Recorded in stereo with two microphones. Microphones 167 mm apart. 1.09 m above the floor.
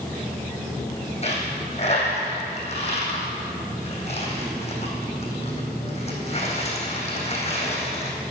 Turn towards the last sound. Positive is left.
turn(degrees=40)  # may be behind; listen again after turning